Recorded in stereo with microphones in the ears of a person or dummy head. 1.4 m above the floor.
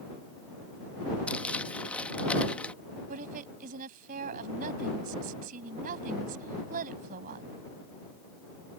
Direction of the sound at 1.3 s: 10° left (ahead or behind).